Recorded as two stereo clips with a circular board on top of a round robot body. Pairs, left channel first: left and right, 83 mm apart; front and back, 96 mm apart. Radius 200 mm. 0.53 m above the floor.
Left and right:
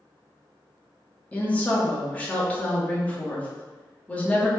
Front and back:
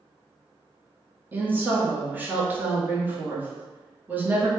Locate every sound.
1.3 s a woman speaking: 140° left, 1.2 m